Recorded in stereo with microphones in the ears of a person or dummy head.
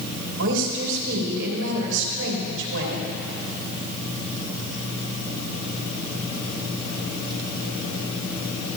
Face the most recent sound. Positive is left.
turn(degrees=-75)  # may be behind; listen again after turning